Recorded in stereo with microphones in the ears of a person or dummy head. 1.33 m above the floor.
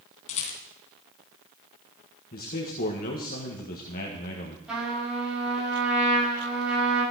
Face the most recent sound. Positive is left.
turn(degrees=-5)  # may be behind; listen again after turning